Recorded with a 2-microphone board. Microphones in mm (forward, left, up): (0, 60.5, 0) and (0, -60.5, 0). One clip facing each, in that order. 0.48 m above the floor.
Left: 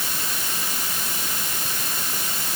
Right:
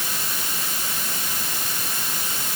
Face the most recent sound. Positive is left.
No sound to turn to.